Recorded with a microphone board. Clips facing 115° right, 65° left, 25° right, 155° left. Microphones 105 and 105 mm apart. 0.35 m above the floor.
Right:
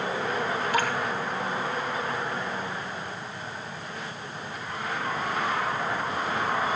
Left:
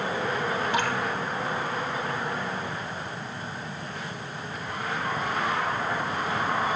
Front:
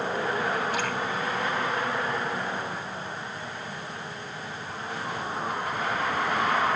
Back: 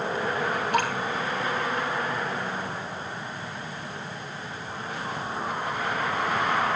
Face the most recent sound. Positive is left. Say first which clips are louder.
# right 2 dB, back 4 dB
turn(degrees=135)